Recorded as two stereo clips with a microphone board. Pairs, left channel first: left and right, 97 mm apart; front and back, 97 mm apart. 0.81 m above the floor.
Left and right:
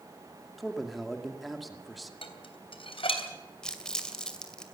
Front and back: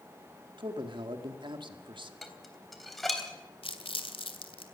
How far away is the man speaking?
About 2 m.